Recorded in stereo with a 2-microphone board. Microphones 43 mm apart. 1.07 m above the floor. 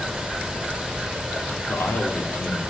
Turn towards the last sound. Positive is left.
turn(degrees=80)